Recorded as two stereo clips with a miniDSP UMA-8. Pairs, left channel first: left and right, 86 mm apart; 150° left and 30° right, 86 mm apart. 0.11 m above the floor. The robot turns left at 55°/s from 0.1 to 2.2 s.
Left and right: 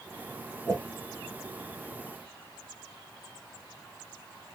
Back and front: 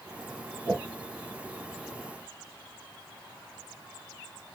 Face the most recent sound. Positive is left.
turn(degrees=-120)